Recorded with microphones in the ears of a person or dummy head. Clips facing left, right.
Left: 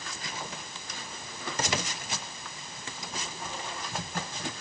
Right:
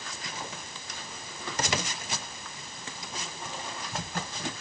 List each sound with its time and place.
Only background noise.